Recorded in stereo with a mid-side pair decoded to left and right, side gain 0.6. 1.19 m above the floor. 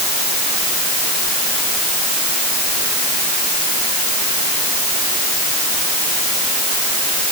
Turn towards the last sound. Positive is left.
No sound to turn to.